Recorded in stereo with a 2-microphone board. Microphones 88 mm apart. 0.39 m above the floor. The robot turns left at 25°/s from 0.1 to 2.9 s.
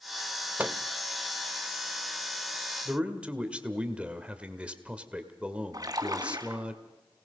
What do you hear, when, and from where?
0.6 s a microwave: 20° right (ahead or behind), 0.7 m
2.9 s a man speaking: 15° right (ahead or behind), 1.6 m
5.7 s a splash: 45° right (ahead or behind), 2 m